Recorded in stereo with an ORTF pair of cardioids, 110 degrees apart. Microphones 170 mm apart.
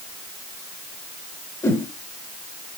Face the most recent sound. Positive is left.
turn(degrees=15)